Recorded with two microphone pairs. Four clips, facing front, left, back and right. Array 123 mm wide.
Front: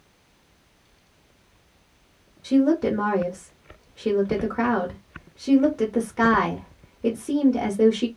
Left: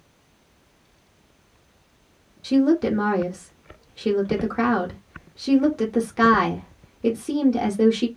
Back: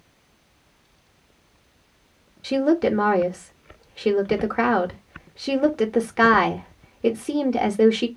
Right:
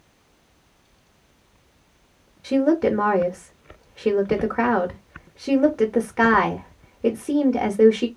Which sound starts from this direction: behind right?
A woman speaking, at 2.4 s.